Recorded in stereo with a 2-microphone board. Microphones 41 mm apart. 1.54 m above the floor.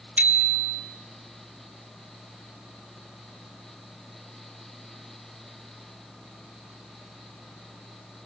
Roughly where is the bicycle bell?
Right.